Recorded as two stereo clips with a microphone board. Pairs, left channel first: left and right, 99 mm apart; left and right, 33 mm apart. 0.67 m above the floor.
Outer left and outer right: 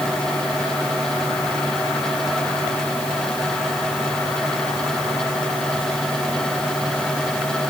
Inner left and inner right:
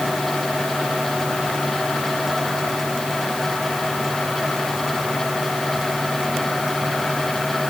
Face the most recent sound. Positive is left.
No sound to turn to.